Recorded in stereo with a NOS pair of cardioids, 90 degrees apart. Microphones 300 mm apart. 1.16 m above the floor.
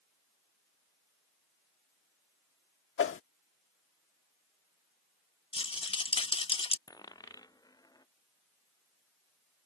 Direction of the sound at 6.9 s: 10° left.